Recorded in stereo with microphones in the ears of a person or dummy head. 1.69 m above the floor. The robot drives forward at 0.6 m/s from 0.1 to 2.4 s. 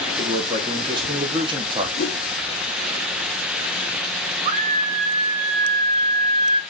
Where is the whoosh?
50° left (ahead or behind), 4 m.